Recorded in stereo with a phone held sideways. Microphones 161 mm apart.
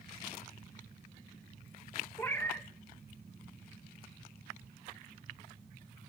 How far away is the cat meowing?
About 0.8 m.